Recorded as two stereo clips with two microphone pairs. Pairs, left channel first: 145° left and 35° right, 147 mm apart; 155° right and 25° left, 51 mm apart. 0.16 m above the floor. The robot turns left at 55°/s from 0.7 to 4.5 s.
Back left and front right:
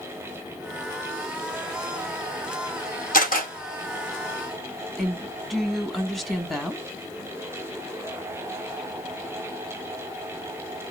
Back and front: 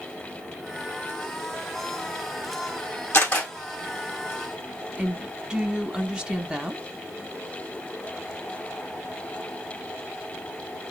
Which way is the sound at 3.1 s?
165° left.